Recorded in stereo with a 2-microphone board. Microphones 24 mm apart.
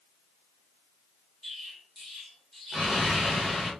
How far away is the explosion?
About 1.3 m.